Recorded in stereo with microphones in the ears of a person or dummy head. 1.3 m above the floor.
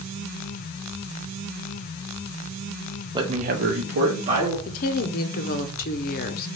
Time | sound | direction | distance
3.1 | a man speaking | 20° right (ahead or behind) | 0.7 m
4.7 | a woman speaking | 45° left (ahead or behind) | 0.7 m